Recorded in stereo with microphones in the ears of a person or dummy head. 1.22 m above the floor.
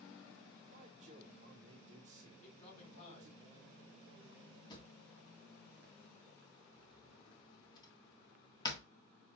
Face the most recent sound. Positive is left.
turn(degrees=25)  # may be behind; listen again after turning